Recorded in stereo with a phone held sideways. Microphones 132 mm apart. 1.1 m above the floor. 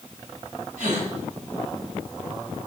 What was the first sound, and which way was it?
A gasp, 80° right.